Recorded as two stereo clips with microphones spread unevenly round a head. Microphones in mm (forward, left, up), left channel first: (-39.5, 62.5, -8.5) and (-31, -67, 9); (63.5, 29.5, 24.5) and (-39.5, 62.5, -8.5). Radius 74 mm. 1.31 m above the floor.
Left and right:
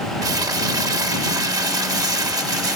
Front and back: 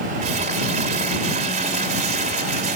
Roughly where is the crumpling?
Behind right.